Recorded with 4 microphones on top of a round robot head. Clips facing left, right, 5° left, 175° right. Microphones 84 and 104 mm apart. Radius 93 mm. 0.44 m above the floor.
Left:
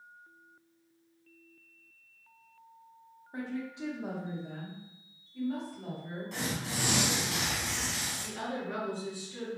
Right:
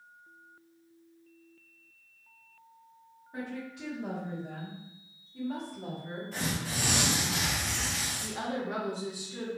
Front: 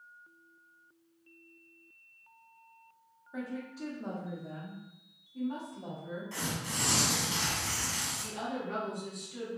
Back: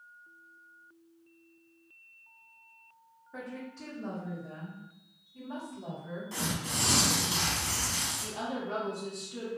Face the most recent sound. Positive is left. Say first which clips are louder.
# right 3 dB, back 1 dB
turn(degrees=-145)